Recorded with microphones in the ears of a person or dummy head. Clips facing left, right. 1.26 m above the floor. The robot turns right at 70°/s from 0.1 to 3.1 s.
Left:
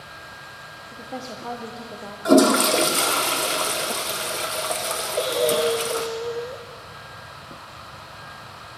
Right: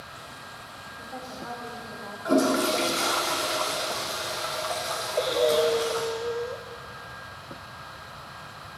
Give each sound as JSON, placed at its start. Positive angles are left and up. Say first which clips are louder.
{"t": 0.9, "sound": "a woman speaking", "louder": "left 6 dB", "azimuth_deg": 45, "distance_m": 0.9}
{"t": 2.2, "sound": "a toilet flushing", "louder": "left 7 dB", "azimuth_deg": 75, "distance_m": 0.7}
{"t": 5.2, "sound": "breathing", "louder": "left 1 dB", "side_deg": 10, "distance_m": 0.6}